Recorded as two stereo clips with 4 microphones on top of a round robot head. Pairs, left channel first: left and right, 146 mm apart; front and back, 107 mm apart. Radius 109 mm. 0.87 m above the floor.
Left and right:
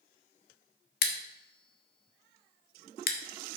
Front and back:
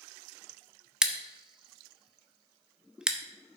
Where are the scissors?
100° left, 1.0 m.